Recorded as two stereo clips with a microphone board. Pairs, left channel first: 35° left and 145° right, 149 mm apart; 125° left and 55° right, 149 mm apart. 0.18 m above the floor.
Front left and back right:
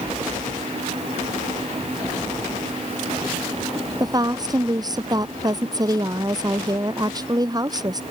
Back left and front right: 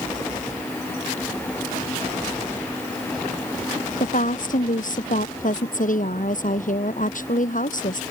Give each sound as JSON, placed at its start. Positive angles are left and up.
{"t": 4.0, "sound": "a woman speaking", "azimuth_deg": 150}